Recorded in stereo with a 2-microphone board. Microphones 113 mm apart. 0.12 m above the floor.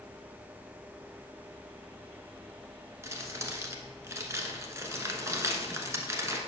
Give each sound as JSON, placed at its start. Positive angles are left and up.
{"t": 3.0, "sound": "crumpling", "side_deg": -25, "distance_m": 1.1}